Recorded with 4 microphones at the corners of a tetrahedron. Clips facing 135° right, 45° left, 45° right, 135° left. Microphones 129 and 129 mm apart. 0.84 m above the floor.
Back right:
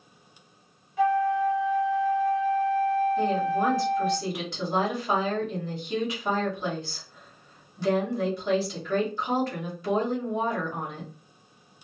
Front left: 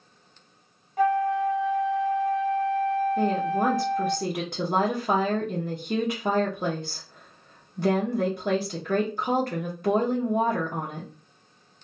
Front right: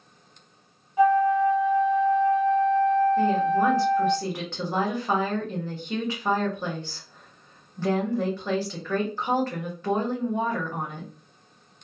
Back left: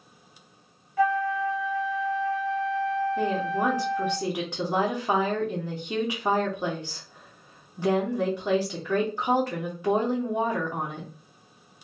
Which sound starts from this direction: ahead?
A flute, at 1.0 s.